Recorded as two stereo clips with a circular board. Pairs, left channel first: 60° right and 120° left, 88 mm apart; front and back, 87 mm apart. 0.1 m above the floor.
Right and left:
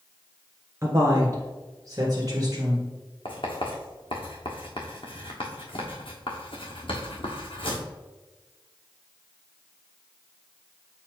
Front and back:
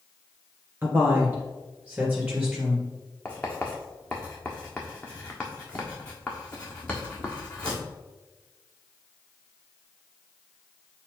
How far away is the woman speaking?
About 1.9 m.